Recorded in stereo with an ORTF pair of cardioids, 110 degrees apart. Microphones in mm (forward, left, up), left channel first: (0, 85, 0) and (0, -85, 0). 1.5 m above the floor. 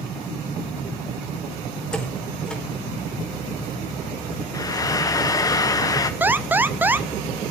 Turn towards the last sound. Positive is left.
turn(degrees=-10)